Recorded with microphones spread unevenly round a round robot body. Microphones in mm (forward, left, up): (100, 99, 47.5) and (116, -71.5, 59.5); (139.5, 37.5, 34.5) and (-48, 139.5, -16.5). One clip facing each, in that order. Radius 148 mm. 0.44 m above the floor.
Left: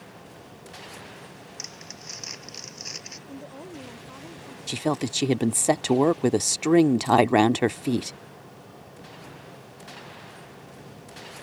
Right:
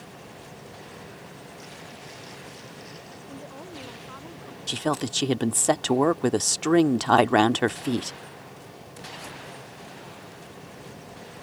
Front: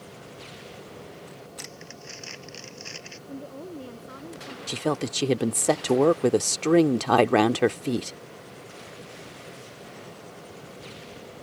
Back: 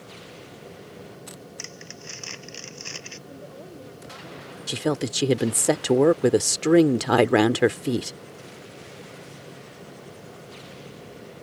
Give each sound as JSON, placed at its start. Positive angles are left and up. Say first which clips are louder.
{"t": 1.6, "sound": "crumpling", "louder": "right 2 dB, back 1 dB", "azimuth_deg": 120}
{"t": 3.3, "sound": "a woman speaking", "louder": "left 2 dB, front 6 dB", "azimuth_deg": 20}
{"t": 4.7, "sound": "a woman speaking", "louder": "left 1 dB, back 2 dB", "azimuth_deg": 150}